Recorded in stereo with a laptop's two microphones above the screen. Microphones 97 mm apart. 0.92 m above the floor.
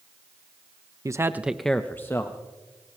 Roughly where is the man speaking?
Right.